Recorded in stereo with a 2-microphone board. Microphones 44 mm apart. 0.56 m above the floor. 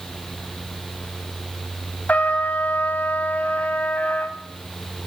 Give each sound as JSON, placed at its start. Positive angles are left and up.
{"t": 2.1, "sound": "a trumpet", "side_deg": 35, "distance_m": 1.3}